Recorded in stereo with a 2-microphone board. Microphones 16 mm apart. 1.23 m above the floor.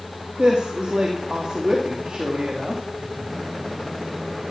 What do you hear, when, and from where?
0.4 s a woman speaking: 85° right, 2.5 m